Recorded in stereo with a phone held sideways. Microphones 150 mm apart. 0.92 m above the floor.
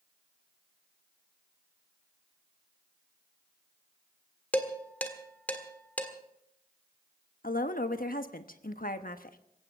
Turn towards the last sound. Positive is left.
turn(degrees=70)  # may be behind; listen again after turning